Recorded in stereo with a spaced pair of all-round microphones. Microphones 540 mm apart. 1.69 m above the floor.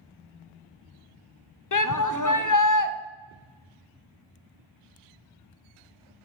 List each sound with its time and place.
1.7 s a shout: 40° left (ahead or behind), 0.6 m